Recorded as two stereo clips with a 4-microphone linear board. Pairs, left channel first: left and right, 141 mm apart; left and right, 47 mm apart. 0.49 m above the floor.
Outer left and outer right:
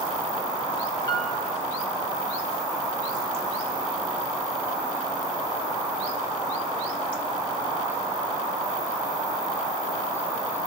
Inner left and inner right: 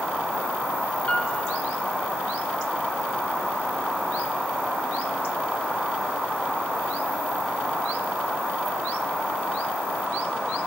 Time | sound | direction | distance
1.1 | a piano | 30° left (ahead or behind) | 0.7 m